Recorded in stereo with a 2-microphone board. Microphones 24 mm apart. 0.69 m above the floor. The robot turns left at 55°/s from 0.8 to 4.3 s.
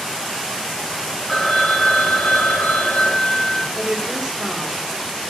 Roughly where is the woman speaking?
Behind right.